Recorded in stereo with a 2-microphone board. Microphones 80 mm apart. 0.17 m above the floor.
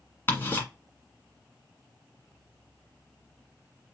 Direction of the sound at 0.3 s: 30° left (ahead or behind).